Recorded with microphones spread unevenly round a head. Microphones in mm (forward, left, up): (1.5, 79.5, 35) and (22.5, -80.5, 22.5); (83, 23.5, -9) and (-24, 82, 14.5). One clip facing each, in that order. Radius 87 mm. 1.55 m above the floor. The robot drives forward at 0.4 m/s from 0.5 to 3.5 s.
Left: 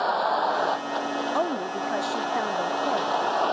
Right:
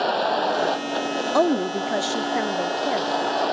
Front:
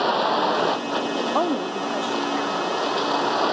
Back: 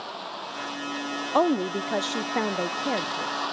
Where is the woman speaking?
125° right; by 3.4 s 160° right.